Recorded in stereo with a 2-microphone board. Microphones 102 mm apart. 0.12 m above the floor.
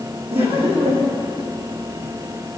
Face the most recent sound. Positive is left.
turn(degrees=-75)  # may be behind; listen again after turning